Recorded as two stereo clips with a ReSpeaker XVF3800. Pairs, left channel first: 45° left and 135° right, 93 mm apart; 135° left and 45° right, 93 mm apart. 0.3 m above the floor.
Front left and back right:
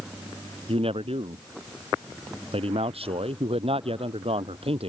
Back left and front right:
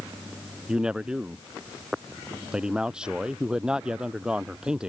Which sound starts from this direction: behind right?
A man speaking, at 0.7 s.